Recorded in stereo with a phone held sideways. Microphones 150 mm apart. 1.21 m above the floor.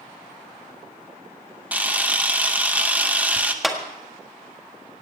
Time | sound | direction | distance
1.7 | a camera shutter | 10° right (ahead or behind) | 0.9 m
3.6 | a clap | centre (ahead or behind) | 1.6 m